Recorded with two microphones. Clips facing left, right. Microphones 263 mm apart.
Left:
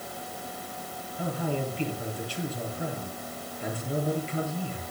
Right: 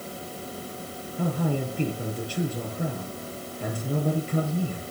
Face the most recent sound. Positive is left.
turn(degrees=-50)  # may be behind; listen again after turning